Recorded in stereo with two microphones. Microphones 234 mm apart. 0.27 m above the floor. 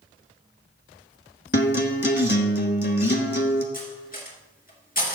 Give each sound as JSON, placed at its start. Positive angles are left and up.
{"t": 1.5, "sound": "a guitar", "side_deg": 45, "distance_m": 1.2}
{"t": 3.7, "sound": "cutlery clinking", "side_deg": 35, "distance_m": 2.5}